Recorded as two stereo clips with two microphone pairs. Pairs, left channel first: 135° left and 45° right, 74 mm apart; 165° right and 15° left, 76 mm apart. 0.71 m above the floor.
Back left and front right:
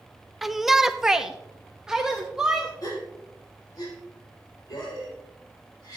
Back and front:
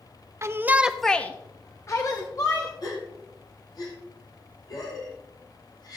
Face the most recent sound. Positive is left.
turn(degrees=165)